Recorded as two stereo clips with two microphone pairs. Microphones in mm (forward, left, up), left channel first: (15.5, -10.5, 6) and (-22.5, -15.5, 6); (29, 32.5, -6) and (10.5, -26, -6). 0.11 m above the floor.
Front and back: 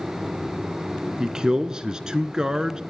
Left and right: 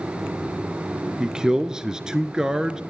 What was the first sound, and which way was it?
A man speaking, 165° right.